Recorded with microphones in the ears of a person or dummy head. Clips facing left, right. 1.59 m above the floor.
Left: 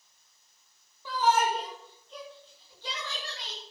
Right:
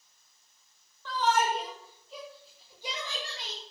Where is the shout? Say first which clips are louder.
Left 2 dB; 15° left (ahead or behind), 2.5 m; by 3.6 s 20° right (ahead or behind), 3 m.